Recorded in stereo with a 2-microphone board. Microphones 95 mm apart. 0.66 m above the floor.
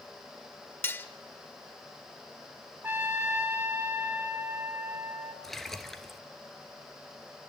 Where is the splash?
5° left (ahead or behind), 1.6 m.